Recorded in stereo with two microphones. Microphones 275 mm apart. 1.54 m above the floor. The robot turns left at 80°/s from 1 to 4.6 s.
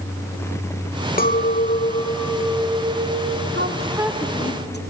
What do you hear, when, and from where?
1.2 s a clink: 95° left, 0.7 m; by 3.4 s 85° right, 0.7 m
3.5 s a woman speaking: 135° right, 1.3 m; by 4.8 s 140° left, 1.3 m